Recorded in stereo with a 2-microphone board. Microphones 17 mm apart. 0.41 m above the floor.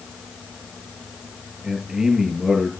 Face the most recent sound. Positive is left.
turn(degrees=-25)  # may be behind; listen again after turning